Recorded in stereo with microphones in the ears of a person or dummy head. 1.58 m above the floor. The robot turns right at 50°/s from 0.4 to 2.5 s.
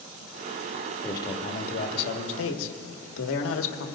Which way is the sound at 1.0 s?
10° left.